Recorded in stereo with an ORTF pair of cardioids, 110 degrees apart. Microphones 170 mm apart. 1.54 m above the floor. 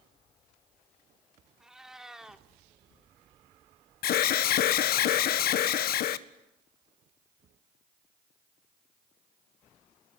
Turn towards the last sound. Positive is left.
turn(degrees=65)